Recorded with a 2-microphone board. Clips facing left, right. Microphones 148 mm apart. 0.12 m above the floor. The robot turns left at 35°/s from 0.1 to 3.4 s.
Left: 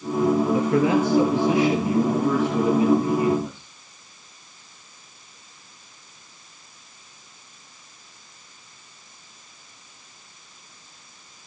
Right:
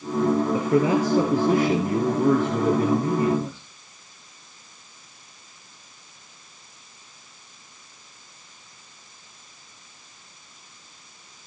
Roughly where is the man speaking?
Ahead right.